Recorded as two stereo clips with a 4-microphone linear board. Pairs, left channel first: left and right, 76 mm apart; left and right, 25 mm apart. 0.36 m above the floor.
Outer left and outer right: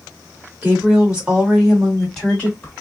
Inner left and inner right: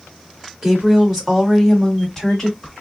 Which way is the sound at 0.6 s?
20° right (ahead or behind).